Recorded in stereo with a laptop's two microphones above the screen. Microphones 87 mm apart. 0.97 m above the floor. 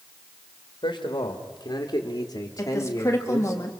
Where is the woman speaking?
35° left (ahead or behind), 1.8 m.